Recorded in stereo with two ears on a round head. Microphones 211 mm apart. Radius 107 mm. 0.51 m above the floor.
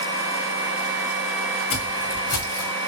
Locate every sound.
1.7 s footsteps: 60° left (ahead or behind), 2.5 m; by 2.7 s 70° left (ahead or behind), 2.5 m